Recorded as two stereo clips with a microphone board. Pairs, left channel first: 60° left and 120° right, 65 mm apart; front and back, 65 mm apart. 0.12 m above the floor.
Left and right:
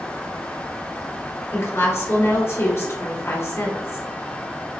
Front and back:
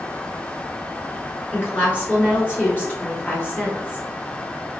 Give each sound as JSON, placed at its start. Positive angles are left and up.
{"t": 1.5, "sound": "a woman speaking", "azimuth_deg": 50, "distance_m": 2.0}